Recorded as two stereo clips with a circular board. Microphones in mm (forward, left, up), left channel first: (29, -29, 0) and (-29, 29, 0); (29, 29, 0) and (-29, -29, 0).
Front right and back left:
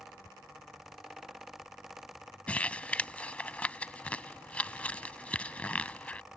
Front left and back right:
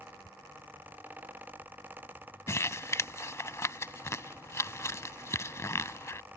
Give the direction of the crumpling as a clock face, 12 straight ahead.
11 o'clock.